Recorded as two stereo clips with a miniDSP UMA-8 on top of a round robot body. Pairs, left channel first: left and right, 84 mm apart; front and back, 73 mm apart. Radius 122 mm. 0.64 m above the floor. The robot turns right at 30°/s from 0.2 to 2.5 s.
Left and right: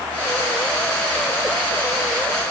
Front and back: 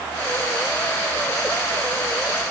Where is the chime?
No chime in this recording.